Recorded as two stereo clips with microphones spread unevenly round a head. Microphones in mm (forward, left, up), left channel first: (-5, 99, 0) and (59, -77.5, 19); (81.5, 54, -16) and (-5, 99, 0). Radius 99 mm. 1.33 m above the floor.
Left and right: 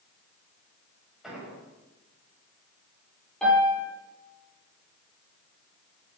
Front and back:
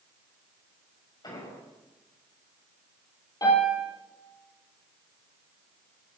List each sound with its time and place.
1.2 s an explosion: 20° left, 8 m
3.4 s a piano: 20° left, 9.5 m